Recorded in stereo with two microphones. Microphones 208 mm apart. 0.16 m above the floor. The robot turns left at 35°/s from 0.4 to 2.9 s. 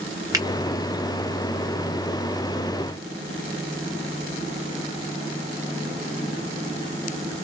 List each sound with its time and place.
0.3 s a finger snap: 15° right (ahead or behind), 1.4 m